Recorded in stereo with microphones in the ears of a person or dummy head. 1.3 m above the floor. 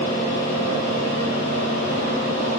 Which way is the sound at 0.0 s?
40° left (ahead or behind).